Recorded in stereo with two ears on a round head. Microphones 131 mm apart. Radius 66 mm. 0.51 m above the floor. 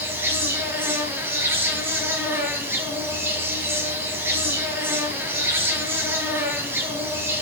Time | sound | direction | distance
0.0 | an insect | 15° right (ahead or behind) | 1.9 m